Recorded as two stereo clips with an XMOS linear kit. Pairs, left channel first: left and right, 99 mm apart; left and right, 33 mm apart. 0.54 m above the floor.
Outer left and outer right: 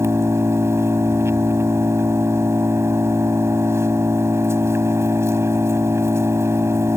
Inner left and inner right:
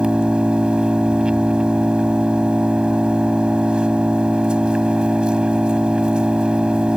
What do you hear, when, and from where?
0.0 s an engine running: 25° right (ahead or behind)